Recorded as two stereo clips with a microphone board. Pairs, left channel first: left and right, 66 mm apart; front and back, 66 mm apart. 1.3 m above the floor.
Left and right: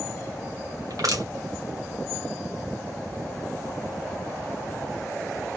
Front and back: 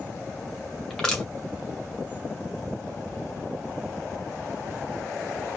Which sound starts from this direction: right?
Crushing, at 0.9 s.